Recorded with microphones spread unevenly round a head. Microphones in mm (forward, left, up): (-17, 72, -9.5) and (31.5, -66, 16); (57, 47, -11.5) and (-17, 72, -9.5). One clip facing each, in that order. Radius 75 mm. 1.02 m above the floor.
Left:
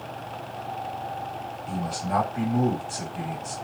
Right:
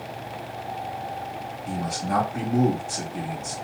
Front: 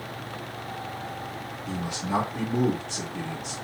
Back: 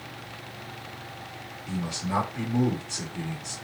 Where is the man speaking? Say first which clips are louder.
Right 1 dB, front 1 dB; 75° right, 2.5 m.